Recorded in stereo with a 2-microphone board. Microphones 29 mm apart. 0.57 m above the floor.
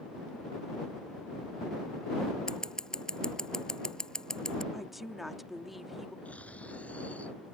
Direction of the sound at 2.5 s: 25° left (ahead or behind).